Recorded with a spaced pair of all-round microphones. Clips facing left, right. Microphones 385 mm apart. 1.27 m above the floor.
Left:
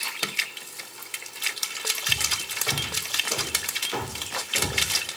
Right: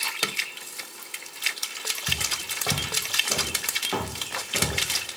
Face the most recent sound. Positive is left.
turn(degrees=-70)  # may be behind; listen again after turning